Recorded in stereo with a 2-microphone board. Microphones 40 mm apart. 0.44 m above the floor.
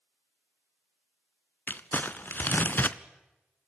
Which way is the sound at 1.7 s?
50° left (ahead or behind).